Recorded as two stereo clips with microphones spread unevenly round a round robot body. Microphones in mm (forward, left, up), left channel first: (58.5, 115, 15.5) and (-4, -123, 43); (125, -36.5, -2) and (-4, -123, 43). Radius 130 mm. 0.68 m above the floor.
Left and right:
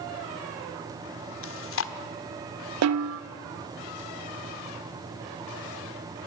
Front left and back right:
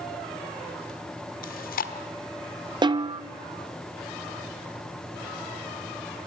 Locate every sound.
1.4 s chewing: 45° left, 1.5 m
2.8 s a snare drum: 80° right, 1.0 m